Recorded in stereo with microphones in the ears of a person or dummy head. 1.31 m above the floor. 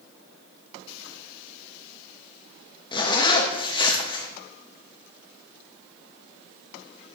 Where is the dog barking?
No dog barking in this recording.